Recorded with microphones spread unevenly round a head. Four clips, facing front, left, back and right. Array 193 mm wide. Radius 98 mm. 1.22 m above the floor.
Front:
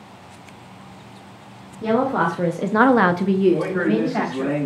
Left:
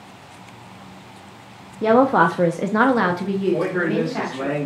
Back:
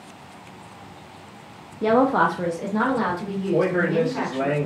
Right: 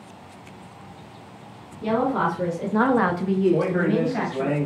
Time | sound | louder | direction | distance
1.8 | a woman speaking | left 7 dB, back 1 dB | 115° left | 0.8 m
3.5 | a man speaking | left 1 dB, even | straight behind | 2 m